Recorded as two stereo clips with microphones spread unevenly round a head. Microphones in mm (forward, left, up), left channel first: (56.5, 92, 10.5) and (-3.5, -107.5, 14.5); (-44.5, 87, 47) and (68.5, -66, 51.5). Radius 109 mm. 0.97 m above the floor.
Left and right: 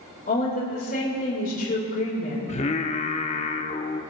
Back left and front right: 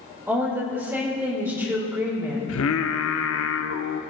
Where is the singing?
130° left, 0.7 m.